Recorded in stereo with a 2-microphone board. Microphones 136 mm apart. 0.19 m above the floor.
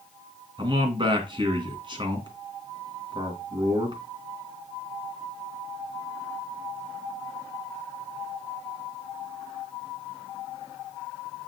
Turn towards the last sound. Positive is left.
turn(degrees=-35)  # may be behind; listen again after turning